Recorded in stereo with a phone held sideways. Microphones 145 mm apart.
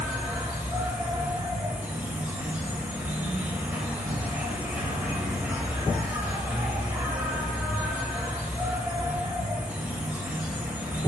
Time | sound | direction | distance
0.0 | an insect | 10° right (ahead or behind) | 1.1 m